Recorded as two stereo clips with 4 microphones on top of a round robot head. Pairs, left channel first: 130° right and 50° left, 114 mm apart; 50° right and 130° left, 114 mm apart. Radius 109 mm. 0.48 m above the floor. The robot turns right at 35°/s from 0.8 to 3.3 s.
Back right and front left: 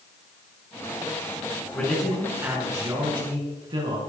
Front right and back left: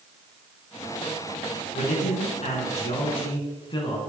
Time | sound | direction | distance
1.7 | a man speaking | 50° right | 6 m